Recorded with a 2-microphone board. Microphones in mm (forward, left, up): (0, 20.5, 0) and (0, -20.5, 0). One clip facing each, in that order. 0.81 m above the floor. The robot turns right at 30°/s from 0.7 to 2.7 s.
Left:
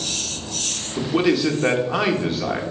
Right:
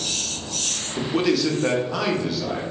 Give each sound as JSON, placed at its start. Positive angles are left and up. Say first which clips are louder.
{"t": 1.0, "sound": "a man speaking", "louder": "left 2 dB", "azimuth_deg": 10, "distance_m": 0.5}